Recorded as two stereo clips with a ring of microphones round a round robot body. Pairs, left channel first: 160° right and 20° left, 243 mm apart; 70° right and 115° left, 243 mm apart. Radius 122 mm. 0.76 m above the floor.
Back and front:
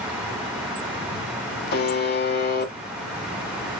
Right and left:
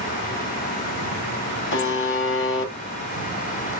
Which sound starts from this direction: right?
A buzzer, at 1.7 s.